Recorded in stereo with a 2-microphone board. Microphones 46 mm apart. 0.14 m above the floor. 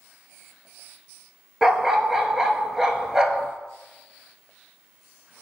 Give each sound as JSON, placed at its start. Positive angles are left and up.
{"t": 1.6, "sound": "a dog barking", "side_deg": -10, "distance_m": 0.9}